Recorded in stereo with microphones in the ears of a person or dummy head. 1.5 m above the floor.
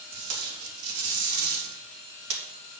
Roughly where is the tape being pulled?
Right.